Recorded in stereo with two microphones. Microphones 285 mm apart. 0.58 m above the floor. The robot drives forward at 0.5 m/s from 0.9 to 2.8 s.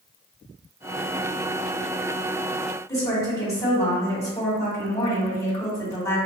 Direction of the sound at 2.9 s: 10° left (ahead or behind).